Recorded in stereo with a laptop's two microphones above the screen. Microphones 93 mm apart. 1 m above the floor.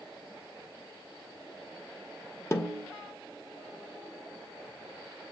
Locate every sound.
2.5 s a snare drum: 30° left (ahead or behind), 1.2 m